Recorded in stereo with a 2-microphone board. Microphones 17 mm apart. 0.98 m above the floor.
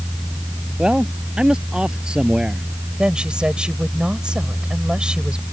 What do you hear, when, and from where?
0.8 s a man speaking: 55° right (ahead or behind)
3.0 s a woman speaking: 60° right (ahead or behind)